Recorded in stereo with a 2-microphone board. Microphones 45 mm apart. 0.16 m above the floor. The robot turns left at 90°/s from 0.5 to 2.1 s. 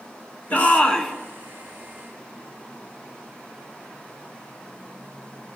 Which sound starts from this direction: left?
A shout, at 0.5 s.